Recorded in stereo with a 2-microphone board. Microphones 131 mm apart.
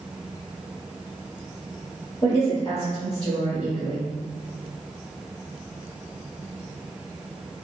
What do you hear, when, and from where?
2.2 s a woman speaking: 45° left (ahead or behind), 1.9 m